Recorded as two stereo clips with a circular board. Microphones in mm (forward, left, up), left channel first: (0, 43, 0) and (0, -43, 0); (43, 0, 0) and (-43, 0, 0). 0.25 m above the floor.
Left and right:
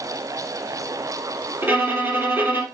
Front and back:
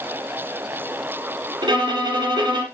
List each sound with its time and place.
1.6 s a violin: 155° right, 3.5 m